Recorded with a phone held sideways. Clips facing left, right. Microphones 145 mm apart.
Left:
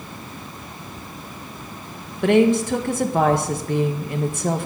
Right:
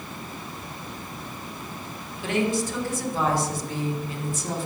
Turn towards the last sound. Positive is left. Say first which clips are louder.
# left 9 dB
turn(degrees=70)  # may be behind; listen again after turning